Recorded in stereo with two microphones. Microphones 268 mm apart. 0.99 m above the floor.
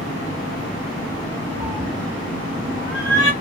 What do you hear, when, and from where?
1.6 s a cat meowing: 15° right (ahead or behind), 1.0 m; by 3.3 s 60° left (ahead or behind), 1.5 m